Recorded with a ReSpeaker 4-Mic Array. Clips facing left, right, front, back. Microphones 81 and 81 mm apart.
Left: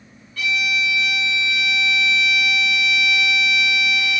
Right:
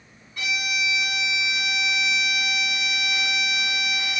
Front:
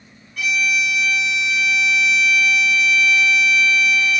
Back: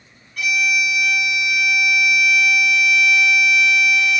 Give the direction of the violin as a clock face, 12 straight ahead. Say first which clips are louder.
Left 5 dB, even; 3 o'clock.